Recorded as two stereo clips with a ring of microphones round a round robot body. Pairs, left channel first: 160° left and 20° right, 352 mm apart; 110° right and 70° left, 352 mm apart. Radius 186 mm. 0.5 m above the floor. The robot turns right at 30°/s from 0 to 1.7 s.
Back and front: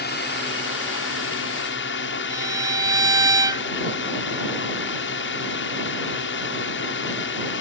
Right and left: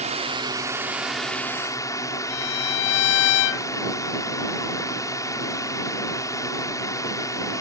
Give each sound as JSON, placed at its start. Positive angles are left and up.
{"t": 0.0, "sound": "a drone", "azimuth_deg": 125}
{"t": 2.3, "sound": "a violin", "azimuth_deg": -105}